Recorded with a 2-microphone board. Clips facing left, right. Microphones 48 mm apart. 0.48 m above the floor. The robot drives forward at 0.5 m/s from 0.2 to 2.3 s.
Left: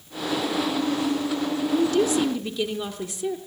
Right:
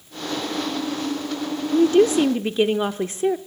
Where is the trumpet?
No trumpet in this recording.